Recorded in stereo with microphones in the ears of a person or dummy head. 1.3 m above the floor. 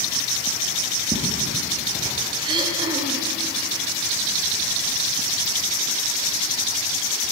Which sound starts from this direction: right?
Throat clearing, at 2.4 s.